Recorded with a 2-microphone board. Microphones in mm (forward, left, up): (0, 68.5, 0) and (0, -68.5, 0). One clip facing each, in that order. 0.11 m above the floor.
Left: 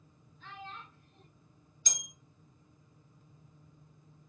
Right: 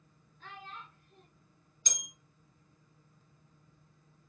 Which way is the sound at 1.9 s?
40° right (ahead or behind).